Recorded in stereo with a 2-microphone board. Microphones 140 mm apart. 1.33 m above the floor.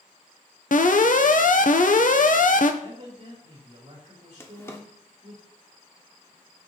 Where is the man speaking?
50° right (ahead or behind), 3 m.